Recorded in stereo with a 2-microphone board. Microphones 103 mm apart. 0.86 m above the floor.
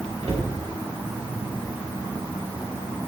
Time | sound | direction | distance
0.2 | a cupboard door | 75° right (ahead or behind) | 2.5 m